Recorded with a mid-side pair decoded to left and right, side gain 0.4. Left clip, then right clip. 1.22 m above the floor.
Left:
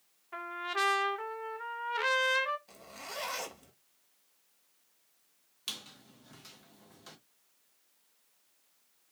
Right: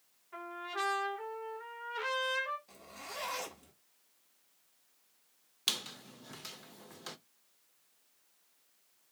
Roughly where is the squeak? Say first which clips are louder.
Right 6 dB; ahead right.